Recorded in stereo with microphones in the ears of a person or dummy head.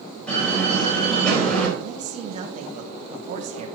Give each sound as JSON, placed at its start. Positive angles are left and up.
{"t": 0.3, "sound": "a door slam", "side_deg": 5, "distance_m": 3.5}
{"t": 1.8, "sound": "a man speaking", "side_deg": -40, "distance_m": 2.0}